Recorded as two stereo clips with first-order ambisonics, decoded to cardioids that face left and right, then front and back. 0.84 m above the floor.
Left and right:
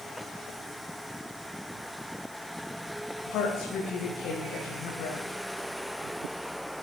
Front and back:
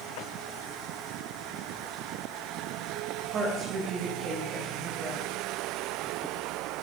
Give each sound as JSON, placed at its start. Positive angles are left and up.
{"t": 3.3, "sound": "a woman speaking", "azimuth_deg": 125, "distance_m": 4.0}